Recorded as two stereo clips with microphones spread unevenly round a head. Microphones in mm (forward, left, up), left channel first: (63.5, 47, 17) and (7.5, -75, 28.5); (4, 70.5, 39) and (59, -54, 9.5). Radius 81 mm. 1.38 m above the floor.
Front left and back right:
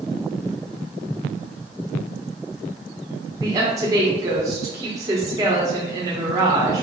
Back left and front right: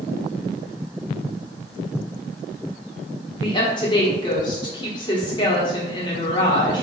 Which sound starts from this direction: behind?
A woman speaking, at 3.4 s.